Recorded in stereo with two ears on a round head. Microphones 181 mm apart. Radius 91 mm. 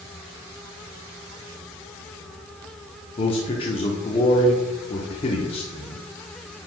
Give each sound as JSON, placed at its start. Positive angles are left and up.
{"t": 3.2, "sound": "a man speaking", "side_deg": 30, "distance_m": 0.8}